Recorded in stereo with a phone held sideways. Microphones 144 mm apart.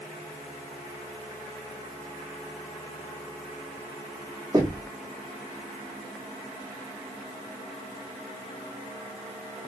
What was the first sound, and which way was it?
Knocking, 30° right (ahead or behind).